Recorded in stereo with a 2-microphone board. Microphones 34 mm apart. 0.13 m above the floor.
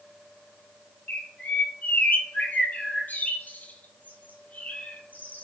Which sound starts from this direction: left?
A bird, at 1.1 s.